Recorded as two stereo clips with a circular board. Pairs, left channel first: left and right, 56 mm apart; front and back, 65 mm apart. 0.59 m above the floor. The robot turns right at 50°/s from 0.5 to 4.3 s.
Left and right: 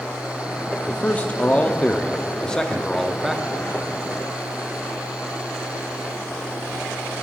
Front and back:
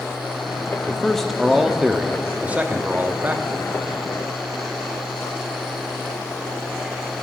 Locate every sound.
0.9 s a man speaking: 65° left, 0.6 m; by 3.4 s 165° right, 0.6 m